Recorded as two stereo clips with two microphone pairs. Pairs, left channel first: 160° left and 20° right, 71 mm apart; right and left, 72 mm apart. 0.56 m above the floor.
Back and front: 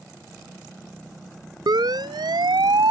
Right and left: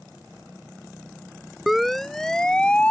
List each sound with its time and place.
1.7 s a siren: straight ahead; by 2.9 s 20° right